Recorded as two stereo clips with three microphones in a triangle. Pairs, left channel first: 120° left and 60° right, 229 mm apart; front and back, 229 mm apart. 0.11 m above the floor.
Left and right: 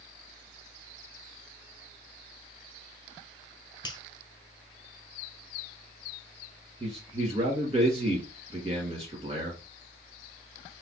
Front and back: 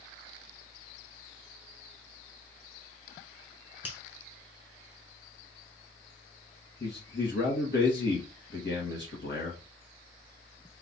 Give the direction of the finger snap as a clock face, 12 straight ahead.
8 o'clock.